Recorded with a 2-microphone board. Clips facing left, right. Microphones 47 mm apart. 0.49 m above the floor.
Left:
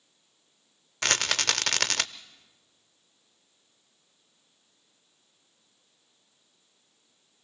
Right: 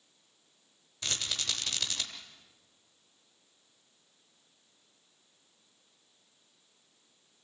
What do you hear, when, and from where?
1.0 s a rattle: 75° left (ahead or behind), 0.6 m